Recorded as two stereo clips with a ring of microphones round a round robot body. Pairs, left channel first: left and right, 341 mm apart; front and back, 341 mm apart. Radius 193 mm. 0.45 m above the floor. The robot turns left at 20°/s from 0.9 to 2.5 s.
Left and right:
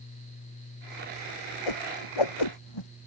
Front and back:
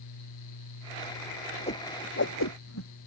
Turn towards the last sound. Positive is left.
turn(degrees=55)